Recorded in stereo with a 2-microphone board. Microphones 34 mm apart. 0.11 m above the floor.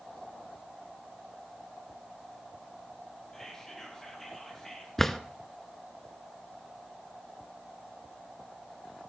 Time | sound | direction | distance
3.3 | whispering | 15° left (ahead or behind) | 3 m
5.0 | a drawer | 10° left (ahead or behind) | 0.6 m